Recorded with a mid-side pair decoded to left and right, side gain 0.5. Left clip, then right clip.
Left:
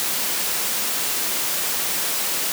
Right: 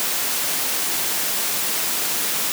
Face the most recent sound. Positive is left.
No sound to turn to.